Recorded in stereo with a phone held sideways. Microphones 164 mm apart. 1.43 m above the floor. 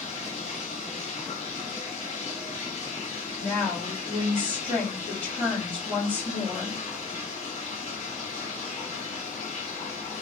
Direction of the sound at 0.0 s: 40° left (ahead or behind).